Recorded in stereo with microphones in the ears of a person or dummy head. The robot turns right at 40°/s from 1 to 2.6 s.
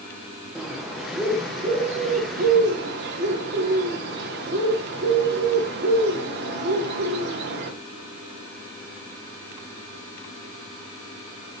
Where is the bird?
175° right, 0.7 m; by 7.7 s 115° right, 0.7 m.